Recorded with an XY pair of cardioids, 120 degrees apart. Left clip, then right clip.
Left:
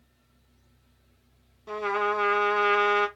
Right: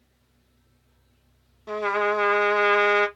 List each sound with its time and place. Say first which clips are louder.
1.7 s a trumpet: right 3 dB; 25° right, 1.3 m